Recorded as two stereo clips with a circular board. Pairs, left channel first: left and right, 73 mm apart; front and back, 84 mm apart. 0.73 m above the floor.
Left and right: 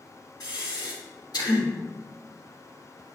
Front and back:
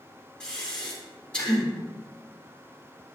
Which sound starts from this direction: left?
Breathing, at 0.4 s.